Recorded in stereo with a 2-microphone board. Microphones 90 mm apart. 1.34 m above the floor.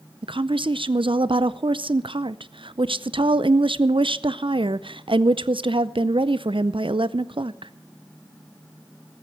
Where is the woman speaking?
80° right, 0.5 m.